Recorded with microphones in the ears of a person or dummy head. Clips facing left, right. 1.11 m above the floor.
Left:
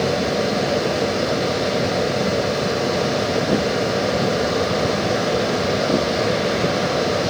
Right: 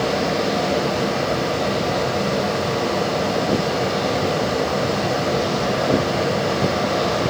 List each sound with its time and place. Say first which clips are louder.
0.0 s a fan: left 1 dB; 25° left (ahead or behind), 8 m